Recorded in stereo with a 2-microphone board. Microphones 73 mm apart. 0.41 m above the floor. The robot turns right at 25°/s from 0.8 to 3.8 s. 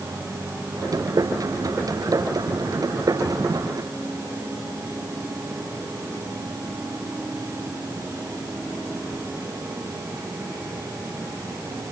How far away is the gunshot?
No gunshot in this recording.